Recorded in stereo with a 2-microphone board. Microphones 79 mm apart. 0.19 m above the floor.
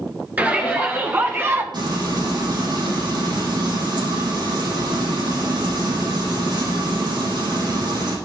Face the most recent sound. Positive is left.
turn(degrees=-70)  # may be behind; listen again after turning